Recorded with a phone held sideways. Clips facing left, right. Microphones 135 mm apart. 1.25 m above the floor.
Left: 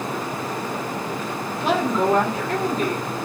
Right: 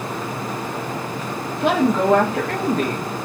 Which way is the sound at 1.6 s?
85° right.